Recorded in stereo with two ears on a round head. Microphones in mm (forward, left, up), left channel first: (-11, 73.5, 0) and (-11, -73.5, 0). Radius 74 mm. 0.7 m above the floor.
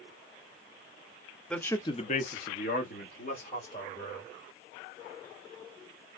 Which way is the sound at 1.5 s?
5° left (ahead or behind).